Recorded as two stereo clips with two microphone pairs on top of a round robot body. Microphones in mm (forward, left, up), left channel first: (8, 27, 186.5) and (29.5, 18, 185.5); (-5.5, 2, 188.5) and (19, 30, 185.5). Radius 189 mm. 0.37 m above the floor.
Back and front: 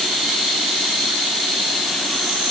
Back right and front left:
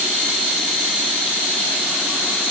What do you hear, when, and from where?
Only background noise.